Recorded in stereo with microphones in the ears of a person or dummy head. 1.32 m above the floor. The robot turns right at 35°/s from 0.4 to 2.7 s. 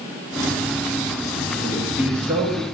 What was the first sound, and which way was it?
A man speaking, 175° left.